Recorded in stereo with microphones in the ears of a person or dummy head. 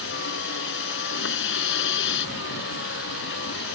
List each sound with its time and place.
0.0 s a vehicle: 70° left (ahead or behind)